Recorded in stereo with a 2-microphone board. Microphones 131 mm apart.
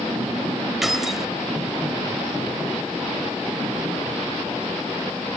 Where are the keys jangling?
Centre (ahead or behind).